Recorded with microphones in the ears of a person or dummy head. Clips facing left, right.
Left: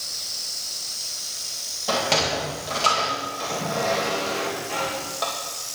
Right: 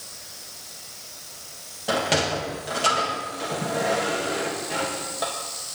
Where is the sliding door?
15° right (ahead or behind), 1.9 m.